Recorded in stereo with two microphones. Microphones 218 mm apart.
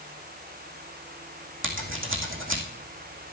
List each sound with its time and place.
1.6 s scissors: 80° right, 2.5 m